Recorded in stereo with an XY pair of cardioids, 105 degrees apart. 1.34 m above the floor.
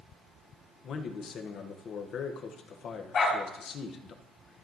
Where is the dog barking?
55° left, 3 m.